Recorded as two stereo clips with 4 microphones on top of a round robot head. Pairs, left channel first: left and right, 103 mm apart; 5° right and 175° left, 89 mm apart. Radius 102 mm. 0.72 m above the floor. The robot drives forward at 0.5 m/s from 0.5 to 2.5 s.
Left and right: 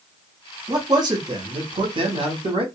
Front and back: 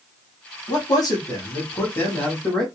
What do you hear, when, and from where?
0.7 s a man speaking: 40° right, 1.3 m; by 2.6 s 85° right, 0.9 m